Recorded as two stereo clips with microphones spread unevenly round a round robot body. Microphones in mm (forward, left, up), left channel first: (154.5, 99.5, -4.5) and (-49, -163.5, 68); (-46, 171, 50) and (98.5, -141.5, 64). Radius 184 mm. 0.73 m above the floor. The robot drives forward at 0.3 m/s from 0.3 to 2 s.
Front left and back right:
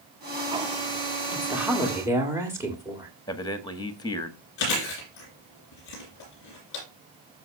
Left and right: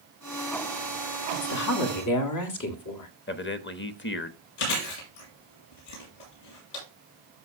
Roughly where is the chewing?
Left.